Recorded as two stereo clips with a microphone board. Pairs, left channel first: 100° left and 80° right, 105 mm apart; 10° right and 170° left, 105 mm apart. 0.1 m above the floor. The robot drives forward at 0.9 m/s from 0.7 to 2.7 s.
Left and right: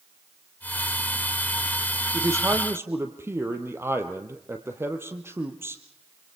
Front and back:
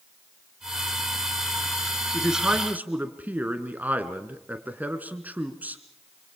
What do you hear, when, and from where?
2.1 s a man speaking: 100° right, 1.8 m; by 5.8 s 125° right, 1.9 m